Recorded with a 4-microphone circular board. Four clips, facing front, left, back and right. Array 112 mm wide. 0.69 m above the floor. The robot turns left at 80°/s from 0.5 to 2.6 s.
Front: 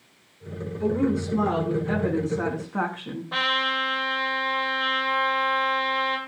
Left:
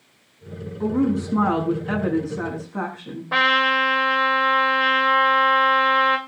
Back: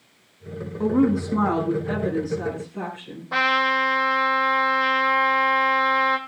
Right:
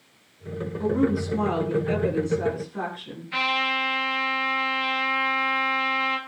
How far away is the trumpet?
About 2.5 m.